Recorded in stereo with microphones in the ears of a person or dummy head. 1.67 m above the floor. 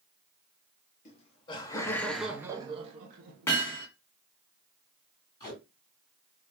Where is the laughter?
40° left (ahead or behind), 1.0 m; by 3.6 s 55° right (ahead or behind), 1.0 m.